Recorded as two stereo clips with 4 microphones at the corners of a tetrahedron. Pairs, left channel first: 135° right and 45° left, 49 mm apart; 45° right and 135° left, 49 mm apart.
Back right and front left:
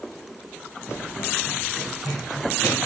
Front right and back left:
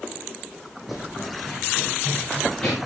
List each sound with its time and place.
0.9 s running footsteps: 140° right, 2.5 m; by 2.8 s 120° right, 5 m